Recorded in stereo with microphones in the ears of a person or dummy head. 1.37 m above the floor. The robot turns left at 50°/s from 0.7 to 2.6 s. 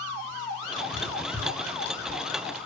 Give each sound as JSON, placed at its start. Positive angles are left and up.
{"t": 0.9, "sound": "writing", "side_deg": -30, "distance_m": 1.2}